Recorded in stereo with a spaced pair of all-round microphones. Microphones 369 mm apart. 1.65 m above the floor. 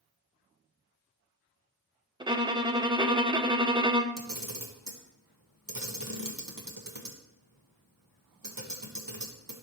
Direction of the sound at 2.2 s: 15° right (ahead or behind).